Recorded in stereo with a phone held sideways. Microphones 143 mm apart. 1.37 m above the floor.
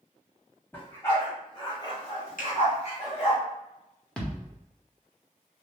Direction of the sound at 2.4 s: 70° left (ahead or behind).